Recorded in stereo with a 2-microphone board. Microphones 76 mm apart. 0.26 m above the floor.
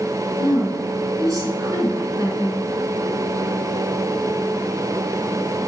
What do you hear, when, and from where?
0.4 s a woman speaking: 60° right (ahead or behind), 3 m